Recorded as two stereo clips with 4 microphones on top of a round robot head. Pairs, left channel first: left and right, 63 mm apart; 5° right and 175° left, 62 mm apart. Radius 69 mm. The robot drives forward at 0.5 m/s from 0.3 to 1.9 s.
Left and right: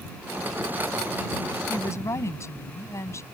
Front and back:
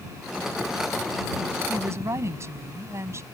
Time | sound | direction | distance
1.7 | a woman speaking | 130° left | ?